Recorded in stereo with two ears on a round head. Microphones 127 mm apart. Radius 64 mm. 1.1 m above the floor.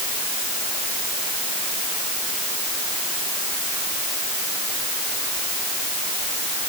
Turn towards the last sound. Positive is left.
No sound to turn to.